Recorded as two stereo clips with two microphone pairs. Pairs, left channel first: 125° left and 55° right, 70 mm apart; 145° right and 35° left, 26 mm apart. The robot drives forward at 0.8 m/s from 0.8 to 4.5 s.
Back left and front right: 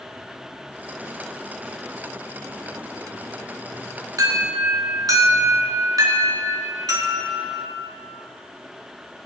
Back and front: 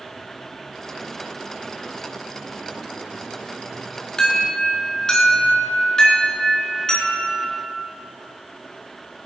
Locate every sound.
4.2 s an alarm: 75° right, 4 m; by 7.8 s 80° right, 4 m